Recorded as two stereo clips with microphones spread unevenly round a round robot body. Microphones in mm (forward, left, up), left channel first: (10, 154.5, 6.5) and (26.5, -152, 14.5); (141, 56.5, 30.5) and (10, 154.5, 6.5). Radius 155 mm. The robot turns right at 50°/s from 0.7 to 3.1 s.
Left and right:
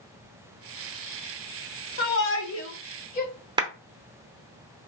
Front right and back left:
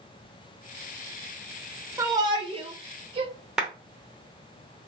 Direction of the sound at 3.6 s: 150° right.